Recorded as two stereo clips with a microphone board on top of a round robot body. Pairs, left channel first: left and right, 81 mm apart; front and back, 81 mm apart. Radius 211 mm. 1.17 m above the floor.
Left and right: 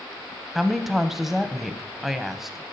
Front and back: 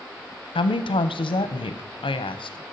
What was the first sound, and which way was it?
A woman speaking, 5° right.